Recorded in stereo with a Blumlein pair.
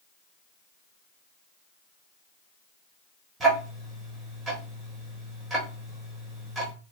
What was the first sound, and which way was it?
Ticking, 20° right.